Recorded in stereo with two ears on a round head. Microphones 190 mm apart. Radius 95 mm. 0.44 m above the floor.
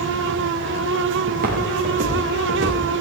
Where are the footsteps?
45° right (ahead or behind), 5.5 m; by 3.0 s 30° right (ahead or behind), 5.5 m.